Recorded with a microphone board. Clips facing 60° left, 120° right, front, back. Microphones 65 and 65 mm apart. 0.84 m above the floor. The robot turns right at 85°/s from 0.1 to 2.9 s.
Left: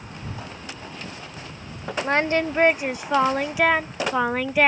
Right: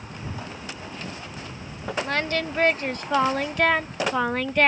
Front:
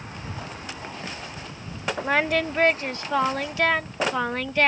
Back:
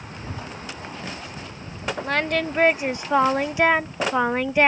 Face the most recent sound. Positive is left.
turn(degrees=130)